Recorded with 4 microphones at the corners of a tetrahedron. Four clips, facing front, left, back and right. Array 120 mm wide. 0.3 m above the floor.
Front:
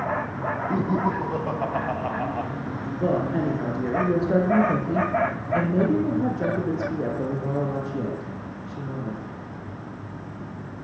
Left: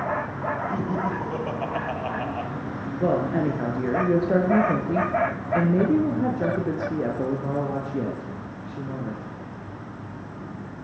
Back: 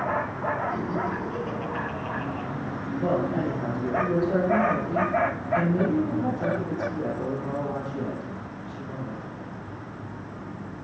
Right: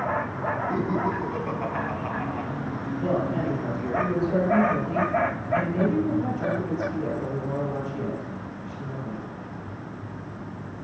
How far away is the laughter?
About 2 m.